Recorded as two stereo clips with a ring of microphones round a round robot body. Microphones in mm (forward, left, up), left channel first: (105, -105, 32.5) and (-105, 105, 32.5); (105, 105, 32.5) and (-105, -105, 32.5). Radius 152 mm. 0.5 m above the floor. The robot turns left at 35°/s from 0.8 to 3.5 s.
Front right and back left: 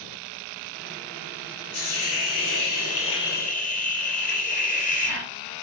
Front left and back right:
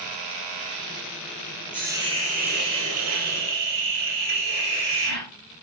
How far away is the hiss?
About 4 m.